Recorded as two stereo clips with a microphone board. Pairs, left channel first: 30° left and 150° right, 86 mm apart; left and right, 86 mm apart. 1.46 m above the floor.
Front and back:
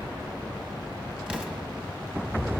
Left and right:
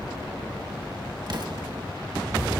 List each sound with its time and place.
1.3 s an explosion: 75° right, 1.1 m